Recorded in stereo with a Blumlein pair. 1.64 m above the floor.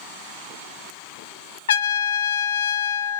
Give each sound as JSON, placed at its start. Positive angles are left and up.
{"t": 1.7, "sound": "a trumpet", "azimuth_deg": 60, "distance_m": 0.5}